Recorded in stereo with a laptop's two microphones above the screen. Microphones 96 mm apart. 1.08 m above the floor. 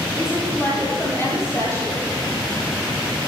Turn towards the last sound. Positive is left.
turn(degrees=30)  # may be behind; listen again after turning